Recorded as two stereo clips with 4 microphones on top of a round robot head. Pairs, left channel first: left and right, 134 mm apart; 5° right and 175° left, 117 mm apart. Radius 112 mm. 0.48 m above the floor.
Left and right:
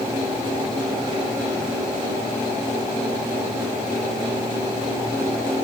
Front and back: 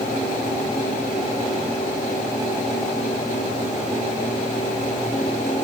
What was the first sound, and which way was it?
Only background noise.